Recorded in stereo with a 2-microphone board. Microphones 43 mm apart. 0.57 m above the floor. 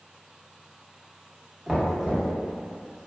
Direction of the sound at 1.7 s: 5° right (ahead or behind).